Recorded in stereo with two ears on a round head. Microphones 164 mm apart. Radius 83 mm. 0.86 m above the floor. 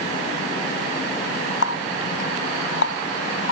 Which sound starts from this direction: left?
A running tap, at 1.6 s.